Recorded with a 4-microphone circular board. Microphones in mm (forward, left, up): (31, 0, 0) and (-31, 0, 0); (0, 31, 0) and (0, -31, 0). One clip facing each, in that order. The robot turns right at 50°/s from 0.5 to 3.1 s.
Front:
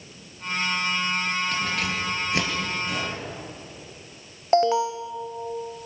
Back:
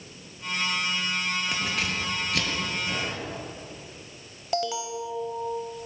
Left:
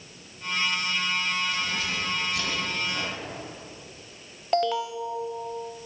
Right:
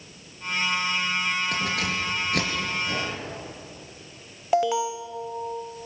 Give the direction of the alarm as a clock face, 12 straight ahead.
12 o'clock.